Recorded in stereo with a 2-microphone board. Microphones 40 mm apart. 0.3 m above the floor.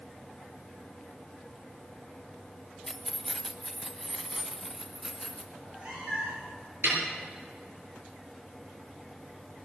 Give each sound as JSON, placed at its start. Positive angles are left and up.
{"t": 2.9, "sound": "keys jangling", "side_deg": 5, "distance_m": 0.7}
{"t": 5.5, "sound": "a cat meowing", "side_deg": -30, "distance_m": 7.0}
{"t": 6.8, "sound": "a snare drum", "side_deg": -70, "distance_m": 6.5}